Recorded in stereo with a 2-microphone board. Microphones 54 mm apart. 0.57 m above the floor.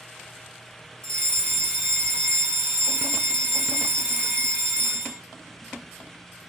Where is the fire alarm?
15° left (ahead or behind), 1.5 m.